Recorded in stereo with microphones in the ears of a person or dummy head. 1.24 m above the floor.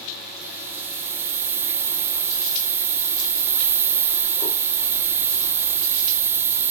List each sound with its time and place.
0.4 s a hiss: 10° right (ahead or behind)